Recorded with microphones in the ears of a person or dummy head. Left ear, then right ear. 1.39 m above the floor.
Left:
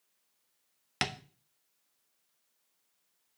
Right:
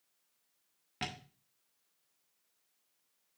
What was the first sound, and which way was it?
Tapping, 55° left (ahead or behind).